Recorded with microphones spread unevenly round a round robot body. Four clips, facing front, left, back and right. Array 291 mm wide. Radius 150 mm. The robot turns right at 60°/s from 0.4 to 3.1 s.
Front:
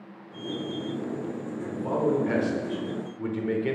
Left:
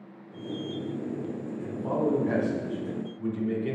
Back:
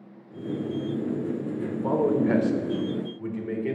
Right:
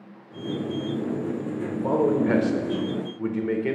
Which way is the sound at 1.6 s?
135° right.